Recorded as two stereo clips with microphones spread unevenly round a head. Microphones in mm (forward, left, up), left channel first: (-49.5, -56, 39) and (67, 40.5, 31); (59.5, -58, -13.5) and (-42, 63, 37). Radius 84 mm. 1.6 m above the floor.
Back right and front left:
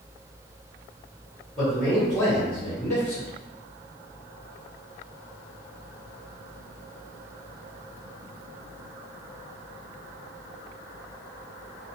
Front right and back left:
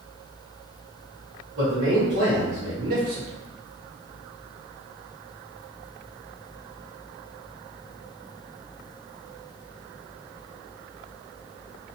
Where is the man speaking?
135° left, 1.5 m; by 3.3 s 175° right, 0.7 m.